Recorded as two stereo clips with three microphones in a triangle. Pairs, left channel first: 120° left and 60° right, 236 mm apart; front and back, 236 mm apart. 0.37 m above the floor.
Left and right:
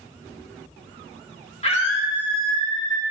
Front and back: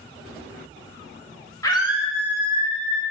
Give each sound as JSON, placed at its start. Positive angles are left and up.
{"t": 1.6, "sound": "a scream", "azimuth_deg": 70, "distance_m": 1.7}